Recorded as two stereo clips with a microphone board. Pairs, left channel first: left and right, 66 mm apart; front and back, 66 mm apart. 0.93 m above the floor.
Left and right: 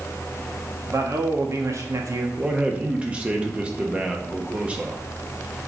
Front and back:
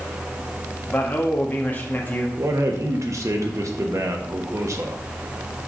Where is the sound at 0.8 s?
60° right, 1.4 m.